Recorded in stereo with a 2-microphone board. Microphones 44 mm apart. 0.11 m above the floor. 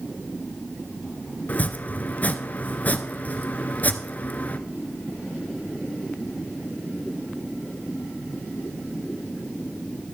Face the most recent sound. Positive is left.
turn(degrees=40)  # may be behind; listen again after turning